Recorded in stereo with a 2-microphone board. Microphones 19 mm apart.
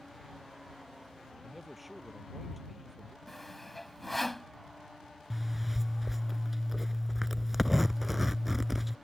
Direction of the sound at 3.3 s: 10° left (ahead or behind).